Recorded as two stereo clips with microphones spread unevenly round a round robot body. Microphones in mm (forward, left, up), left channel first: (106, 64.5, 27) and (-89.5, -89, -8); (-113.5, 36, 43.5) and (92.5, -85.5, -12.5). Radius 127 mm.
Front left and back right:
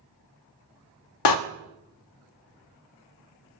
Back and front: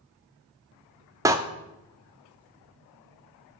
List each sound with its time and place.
1.2 s a door slam: 45° left, 0.7 m